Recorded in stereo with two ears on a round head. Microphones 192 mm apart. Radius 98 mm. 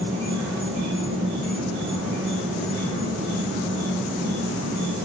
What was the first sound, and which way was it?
An insect, 65° right (ahead or behind).